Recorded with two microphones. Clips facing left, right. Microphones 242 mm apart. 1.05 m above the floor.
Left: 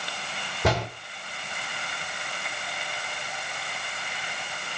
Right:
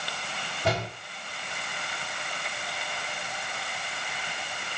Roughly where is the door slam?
Left.